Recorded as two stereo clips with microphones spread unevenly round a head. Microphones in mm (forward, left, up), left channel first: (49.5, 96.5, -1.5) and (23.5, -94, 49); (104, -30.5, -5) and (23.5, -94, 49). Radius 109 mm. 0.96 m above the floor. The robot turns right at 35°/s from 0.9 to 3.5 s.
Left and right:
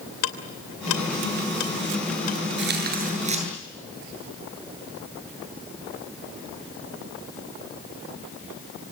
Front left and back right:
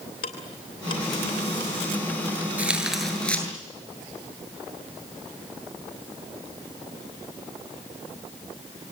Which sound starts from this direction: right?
Tearing paper, at 2.6 s.